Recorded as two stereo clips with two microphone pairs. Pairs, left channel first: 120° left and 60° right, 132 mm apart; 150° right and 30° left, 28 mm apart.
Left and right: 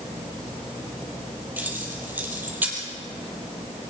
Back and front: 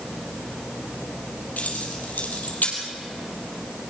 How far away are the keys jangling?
About 4 m.